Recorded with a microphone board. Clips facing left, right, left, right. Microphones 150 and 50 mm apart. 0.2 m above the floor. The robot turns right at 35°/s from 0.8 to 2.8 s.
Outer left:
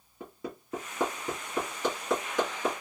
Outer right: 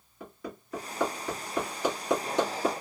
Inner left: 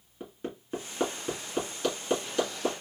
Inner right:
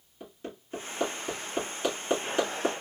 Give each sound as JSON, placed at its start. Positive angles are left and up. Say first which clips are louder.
{"t": 0.2, "sound": "hammering", "louder": "outer left 1 dB, inner left 3 dB", "side_deg": 25, "distance_m": 1.8}